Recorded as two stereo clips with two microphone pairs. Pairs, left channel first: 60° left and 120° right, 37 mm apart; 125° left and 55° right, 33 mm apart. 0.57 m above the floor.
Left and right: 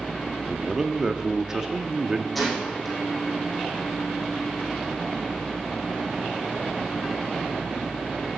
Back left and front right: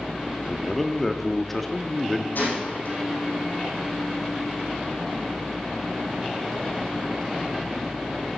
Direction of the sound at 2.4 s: 150° left.